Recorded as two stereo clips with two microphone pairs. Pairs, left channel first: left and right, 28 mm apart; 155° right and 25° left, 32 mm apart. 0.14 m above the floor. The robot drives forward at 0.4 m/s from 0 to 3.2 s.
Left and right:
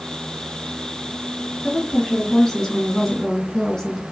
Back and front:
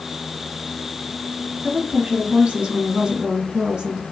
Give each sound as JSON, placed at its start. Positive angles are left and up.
{"t": 1.6, "sound": "a woman speaking", "azimuth_deg": 35, "distance_m": 2.0}